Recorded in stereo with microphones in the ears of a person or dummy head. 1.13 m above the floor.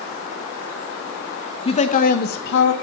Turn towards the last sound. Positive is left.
turn(degrees=70)  # may be behind; listen again after turning